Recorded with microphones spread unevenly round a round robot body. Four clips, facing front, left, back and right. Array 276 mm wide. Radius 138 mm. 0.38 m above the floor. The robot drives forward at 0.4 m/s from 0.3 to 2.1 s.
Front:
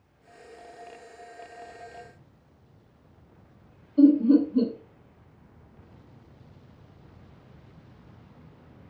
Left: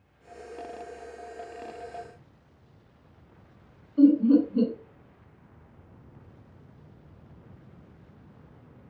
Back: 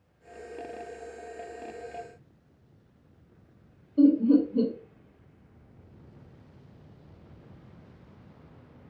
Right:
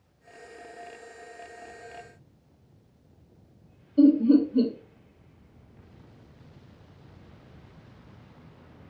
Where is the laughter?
145° right, 1.4 m.